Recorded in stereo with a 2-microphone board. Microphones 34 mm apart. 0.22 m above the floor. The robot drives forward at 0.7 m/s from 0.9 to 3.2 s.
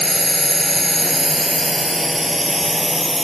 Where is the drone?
5° left (ahead or behind).